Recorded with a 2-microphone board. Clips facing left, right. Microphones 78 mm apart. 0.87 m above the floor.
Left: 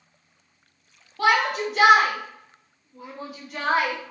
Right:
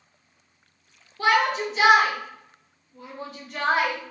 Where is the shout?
65° left (ahead or behind), 1.1 m; by 4.0 s centre (ahead or behind), 1.5 m.